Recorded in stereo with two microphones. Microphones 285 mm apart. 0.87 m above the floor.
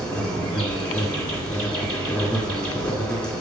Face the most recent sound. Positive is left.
turn(degrees=5)  # may be behind; listen again after turning